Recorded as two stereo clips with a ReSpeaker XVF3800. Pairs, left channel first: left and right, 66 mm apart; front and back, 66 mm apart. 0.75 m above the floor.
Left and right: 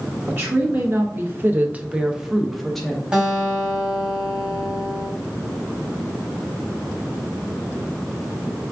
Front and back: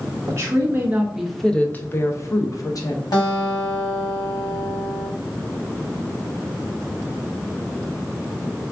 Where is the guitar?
15° right, 1.5 m.